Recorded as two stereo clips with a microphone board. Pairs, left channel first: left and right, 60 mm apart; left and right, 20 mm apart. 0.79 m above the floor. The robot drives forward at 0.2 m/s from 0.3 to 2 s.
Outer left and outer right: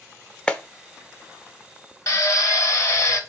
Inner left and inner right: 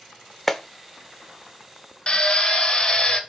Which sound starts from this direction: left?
A drill, at 2.1 s.